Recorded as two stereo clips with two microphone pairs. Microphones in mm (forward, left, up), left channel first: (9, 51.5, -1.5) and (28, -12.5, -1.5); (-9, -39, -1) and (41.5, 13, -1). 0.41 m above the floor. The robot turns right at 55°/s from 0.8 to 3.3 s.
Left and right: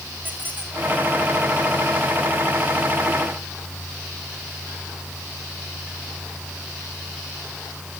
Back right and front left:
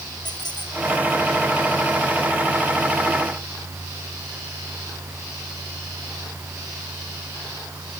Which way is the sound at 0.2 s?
135° right.